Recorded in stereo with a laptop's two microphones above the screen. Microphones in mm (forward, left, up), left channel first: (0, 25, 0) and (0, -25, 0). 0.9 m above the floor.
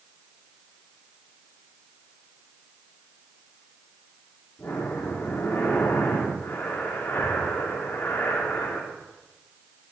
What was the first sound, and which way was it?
Breathing, 50° left (ahead or behind).